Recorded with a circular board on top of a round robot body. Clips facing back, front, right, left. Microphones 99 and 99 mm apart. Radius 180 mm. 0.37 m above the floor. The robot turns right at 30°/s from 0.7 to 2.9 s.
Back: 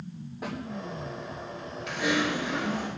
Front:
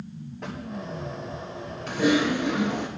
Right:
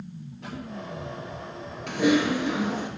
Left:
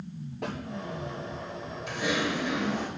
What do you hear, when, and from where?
0.4 s a snare drum: 100° left, 8.5 m
1.9 s typing on a keyboard: 55° right, 2.5 m; by 2.9 s 25° right, 2.5 m